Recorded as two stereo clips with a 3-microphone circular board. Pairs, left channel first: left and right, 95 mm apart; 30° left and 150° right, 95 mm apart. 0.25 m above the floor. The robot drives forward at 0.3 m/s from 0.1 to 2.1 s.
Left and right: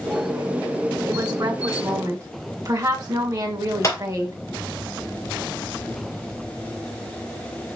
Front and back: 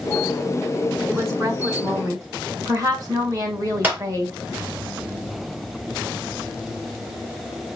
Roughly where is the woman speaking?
Right.